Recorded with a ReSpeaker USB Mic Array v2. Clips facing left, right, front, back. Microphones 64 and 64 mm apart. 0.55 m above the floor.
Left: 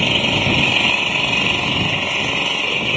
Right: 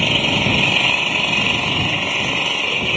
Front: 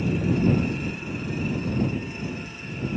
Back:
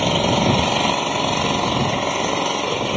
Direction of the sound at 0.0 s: Straight behind.